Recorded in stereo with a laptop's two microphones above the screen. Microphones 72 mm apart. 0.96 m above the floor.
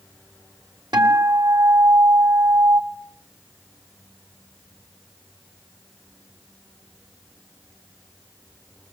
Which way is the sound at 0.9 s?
70° right (ahead or behind).